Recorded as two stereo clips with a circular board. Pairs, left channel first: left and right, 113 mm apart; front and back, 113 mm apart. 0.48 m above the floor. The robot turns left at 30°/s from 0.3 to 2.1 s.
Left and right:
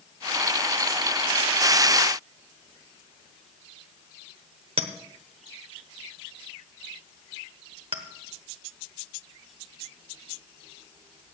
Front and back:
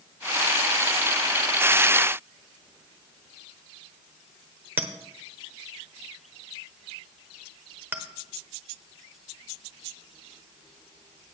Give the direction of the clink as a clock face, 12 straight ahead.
4 o'clock.